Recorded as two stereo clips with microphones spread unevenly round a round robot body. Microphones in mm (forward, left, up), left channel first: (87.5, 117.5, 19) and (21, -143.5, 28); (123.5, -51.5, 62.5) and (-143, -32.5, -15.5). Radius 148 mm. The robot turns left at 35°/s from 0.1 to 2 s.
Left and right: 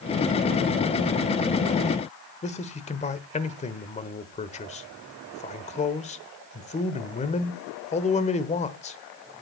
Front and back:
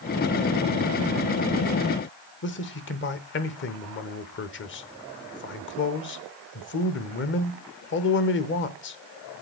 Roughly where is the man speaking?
Ahead left.